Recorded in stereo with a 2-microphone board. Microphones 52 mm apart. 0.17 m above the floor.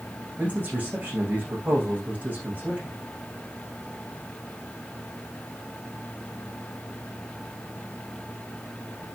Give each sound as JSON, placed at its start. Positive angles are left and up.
{"t": 0.4, "sound": "a man speaking", "side_deg": -30, "distance_m": 10.0}